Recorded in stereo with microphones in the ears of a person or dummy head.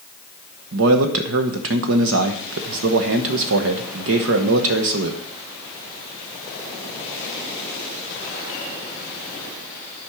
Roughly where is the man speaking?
Right.